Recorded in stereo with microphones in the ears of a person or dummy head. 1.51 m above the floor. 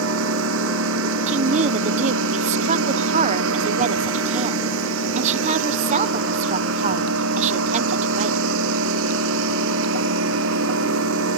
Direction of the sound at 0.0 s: 65° right (ahead or behind).